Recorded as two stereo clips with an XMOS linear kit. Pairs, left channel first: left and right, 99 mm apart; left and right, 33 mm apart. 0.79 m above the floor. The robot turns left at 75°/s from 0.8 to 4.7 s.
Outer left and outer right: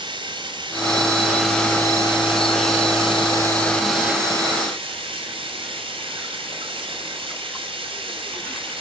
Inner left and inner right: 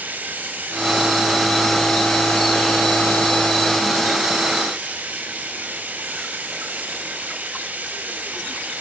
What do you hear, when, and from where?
0.0 s running water: 130° right, 4.5 m; by 8.8 s 60° right, 4.5 m